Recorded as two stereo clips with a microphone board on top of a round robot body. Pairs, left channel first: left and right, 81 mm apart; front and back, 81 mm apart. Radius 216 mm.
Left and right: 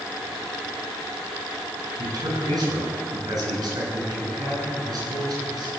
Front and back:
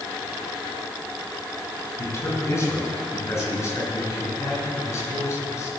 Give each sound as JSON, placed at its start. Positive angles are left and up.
{"t": 2.0, "sound": "a man speaking", "azimuth_deg": -55, "distance_m": 8.5}